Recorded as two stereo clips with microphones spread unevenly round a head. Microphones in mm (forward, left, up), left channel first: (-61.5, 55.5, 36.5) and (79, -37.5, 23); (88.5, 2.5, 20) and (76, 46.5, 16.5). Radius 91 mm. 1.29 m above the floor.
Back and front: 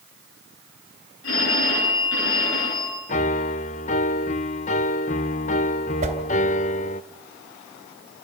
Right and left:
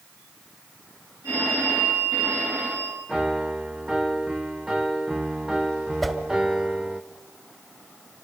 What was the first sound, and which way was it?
A phone ringing, 165° left.